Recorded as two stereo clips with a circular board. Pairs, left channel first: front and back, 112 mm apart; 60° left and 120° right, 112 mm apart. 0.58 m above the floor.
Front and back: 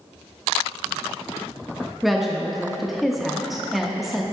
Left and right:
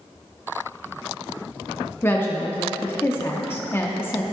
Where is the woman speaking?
90° left, 0.6 m.